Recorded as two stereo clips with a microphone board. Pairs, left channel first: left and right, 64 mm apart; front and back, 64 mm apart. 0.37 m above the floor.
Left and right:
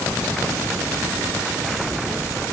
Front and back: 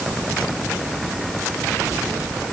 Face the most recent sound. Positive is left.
No sound to turn to.